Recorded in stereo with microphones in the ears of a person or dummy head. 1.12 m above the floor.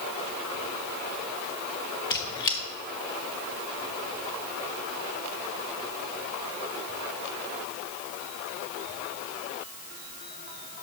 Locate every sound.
2.1 s a squeak: 25° left (ahead or behind), 0.8 m